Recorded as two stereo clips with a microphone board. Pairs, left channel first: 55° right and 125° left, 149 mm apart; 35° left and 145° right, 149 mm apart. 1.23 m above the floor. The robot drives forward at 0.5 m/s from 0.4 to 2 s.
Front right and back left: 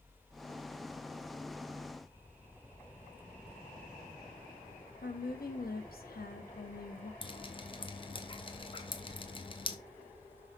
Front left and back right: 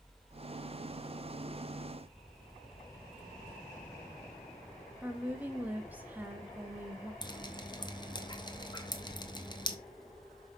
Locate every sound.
5.0 s a woman speaking: 65° right, 1.3 m
7.2 s dripping: 15° right, 0.8 m